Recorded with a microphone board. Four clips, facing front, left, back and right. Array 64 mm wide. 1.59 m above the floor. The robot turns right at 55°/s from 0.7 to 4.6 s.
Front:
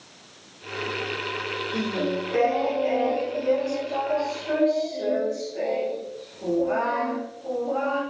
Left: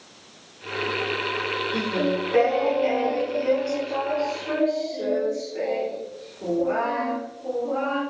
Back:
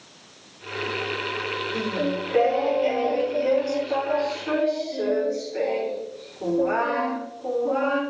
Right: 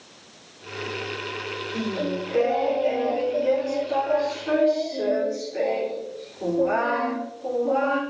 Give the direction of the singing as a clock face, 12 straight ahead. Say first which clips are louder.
Left 2 dB, even; 10 o'clock.